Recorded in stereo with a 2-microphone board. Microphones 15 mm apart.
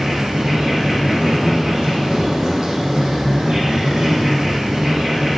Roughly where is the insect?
Right.